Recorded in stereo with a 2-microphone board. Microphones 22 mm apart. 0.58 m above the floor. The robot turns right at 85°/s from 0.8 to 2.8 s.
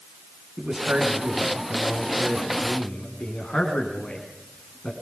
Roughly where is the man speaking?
Right.